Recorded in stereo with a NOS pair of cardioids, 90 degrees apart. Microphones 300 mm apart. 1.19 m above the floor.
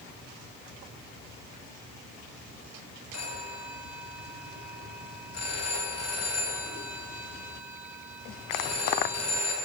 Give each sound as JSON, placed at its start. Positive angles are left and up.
{"t": 3.1, "sound": "a phone ringing", "azimuth_deg": 60, "distance_m": 5.5}